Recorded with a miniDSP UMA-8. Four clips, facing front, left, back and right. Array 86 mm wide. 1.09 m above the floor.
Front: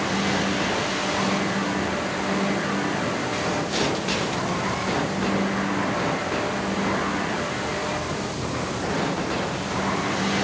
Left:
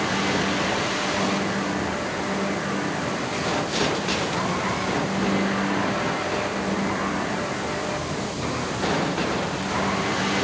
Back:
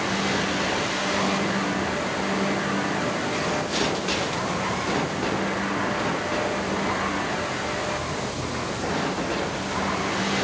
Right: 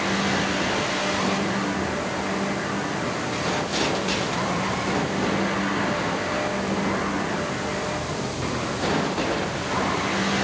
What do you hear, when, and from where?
Only background noise.